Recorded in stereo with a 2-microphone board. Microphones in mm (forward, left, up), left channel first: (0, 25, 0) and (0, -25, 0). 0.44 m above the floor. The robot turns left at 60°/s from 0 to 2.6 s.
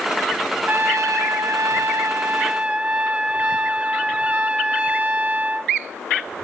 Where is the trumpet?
40° right, 1.0 m; by 5.7 s 155° right, 1.0 m.